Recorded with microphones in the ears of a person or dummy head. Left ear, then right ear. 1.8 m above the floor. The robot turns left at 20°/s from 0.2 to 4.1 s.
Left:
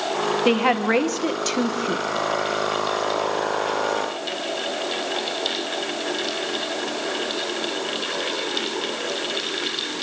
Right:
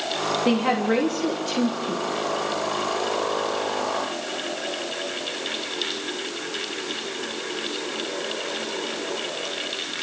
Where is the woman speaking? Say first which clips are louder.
Left 4 dB; 140° left, 1.5 m; by 2.1 s 110° left, 1.5 m.